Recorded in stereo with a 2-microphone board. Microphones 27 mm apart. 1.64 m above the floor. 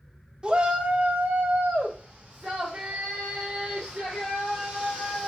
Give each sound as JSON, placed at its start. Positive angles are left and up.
{"t": 0.4, "sound": "a shout", "side_deg": -30, "distance_m": 0.7}